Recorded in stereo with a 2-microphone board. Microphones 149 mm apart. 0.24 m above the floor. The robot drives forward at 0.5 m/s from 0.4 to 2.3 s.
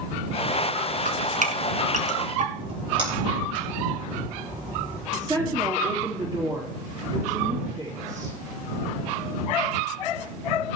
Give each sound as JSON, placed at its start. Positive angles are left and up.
{"t": 1.1, "sound": "dripping", "side_deg": -65, "distance_m": 1.6}
{"t": 2.6, "sound": "a splash", "side_deg": -40, "distance_m": 6.0}
{"t": 5.1, "sound": "a woman speaking", "side_deg": -30, "distance_m": 4.5}